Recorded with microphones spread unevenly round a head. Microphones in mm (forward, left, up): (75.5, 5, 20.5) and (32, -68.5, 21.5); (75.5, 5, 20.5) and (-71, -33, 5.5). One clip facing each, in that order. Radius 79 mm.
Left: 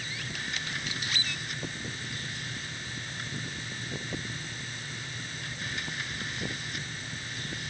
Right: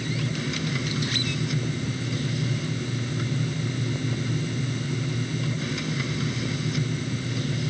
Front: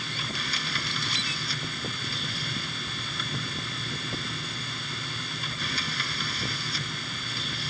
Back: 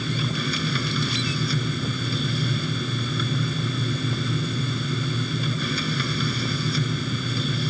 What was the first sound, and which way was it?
A machine running, 160° right.